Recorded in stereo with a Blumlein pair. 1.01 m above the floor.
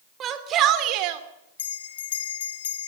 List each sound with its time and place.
0.2 s a shout: 25° right, 3 m; by 1.2 s 45° right, 3 m
1.6 s a bell: 60° left, 2 m